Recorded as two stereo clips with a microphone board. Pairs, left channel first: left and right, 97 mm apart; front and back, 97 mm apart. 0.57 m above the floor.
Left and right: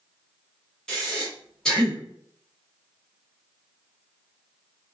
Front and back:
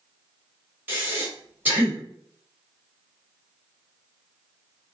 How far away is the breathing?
About 1.2 m.